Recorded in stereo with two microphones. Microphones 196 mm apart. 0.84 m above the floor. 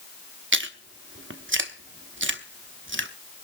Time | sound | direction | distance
0.5 | chewing | 85° right | 1.0 m